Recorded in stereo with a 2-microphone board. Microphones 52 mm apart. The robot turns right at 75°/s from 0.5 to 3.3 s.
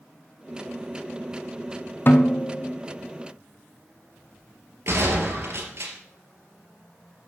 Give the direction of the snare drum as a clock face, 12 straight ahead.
9 o'clock.